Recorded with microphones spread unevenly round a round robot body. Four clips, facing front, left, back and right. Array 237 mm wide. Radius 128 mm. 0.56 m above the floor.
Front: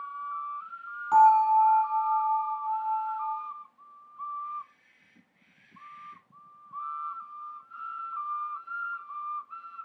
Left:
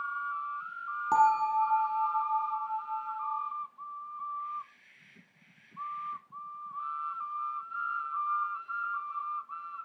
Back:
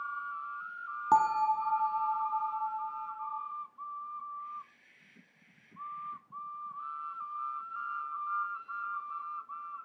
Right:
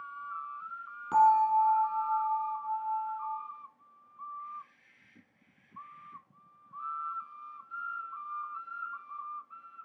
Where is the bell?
175° left, 0.7 m.